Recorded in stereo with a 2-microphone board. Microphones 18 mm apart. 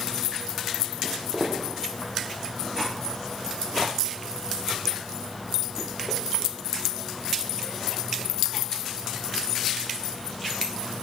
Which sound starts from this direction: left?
Footsteps, at 1.0 s.